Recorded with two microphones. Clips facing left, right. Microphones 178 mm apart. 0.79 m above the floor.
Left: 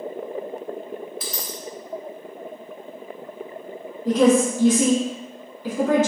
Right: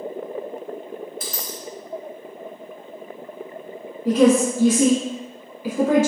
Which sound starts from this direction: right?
A dropped coin, at 1.2 s.